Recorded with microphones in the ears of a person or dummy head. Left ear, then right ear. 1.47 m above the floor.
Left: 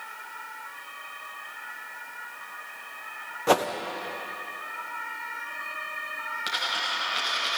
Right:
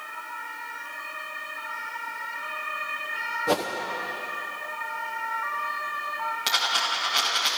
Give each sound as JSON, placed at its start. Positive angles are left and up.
{"t": 3.5, "sound": "a whoosh", "side_deg": 45, "distance_m": 0.9}
{"t": 6.5, "sound": "a dropped coin", "side_deg": -20, "distance_m": 3.0}